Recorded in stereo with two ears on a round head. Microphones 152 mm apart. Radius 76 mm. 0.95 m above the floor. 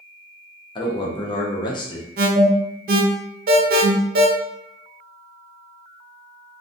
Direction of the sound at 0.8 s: 25° left (ahead or behind).